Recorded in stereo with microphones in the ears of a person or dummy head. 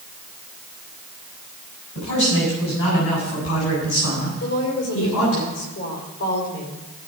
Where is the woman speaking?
80° left, 5 m.